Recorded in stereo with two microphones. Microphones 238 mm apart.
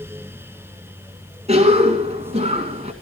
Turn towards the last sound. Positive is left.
turn(degrees=-25)  # may be behind; listen again after turning